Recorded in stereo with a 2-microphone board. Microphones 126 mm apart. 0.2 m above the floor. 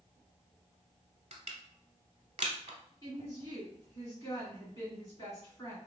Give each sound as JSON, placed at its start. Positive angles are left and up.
{"t": 1.3, "sound": "crushing", "side_deg": -65, "distance_m": 0.8}
{"t": 3.0, "sound": "a woman speaking", "side_deg": 30, "distance_m": 2.0}